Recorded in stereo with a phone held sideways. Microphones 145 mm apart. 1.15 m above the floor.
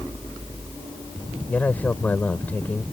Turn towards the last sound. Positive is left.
turn(degrees=10)  # may be behind; listen again after turning